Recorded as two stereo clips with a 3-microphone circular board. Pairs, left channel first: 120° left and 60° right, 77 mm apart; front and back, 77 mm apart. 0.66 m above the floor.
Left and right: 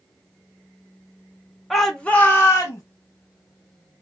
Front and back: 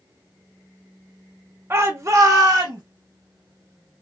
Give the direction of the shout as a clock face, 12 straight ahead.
5 o'clock.